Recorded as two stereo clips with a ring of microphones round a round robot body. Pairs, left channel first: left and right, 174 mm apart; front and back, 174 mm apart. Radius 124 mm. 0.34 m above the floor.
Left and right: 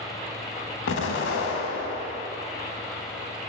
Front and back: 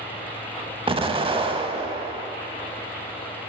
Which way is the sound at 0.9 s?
115° left.